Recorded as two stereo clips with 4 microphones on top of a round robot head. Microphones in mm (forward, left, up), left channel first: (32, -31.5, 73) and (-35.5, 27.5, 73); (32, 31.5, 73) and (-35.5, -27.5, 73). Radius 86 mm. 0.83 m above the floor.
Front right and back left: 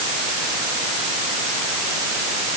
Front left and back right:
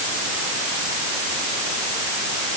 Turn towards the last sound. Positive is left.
No sound to turn to.